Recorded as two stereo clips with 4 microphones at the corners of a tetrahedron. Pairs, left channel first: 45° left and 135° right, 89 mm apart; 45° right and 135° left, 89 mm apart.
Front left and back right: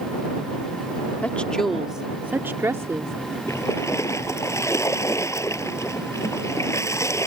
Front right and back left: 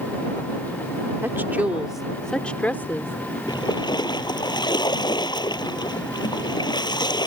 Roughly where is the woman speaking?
Left.